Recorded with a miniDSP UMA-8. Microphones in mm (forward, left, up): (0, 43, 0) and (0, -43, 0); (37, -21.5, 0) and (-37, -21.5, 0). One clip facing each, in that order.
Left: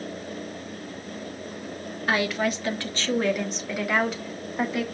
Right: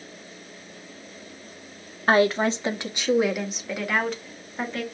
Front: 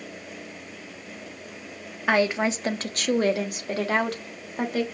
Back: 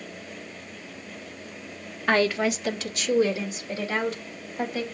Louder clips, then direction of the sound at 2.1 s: Right 5 dB, even; 80° right.